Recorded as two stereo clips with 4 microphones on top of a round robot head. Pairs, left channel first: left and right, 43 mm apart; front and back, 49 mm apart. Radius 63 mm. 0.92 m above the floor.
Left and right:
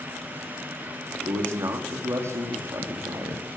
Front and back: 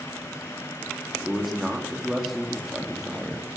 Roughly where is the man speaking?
Right.